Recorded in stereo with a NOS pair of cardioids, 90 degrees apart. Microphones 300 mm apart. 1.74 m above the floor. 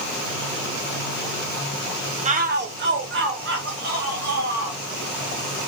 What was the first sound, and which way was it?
A shout, 25° right.